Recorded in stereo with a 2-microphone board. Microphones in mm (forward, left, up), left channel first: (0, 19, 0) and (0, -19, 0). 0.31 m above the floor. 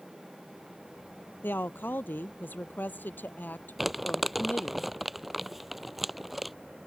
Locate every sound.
1.4 s a woman speaking: 60° left (ahead or behind); by 4.8 s 50° left (ahead or behind)
3.8 s crumpling: 5° right (ahead or behind)